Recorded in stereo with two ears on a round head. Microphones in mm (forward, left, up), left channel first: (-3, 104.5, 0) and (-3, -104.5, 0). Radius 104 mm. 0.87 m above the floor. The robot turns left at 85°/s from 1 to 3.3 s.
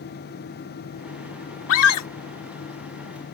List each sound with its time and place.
1.7 s a scream: 120° left; by 2.1 s 85° left